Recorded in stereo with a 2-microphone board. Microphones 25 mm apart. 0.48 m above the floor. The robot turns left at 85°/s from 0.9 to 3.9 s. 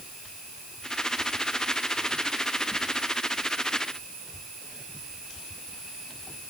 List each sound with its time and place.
Only background noise.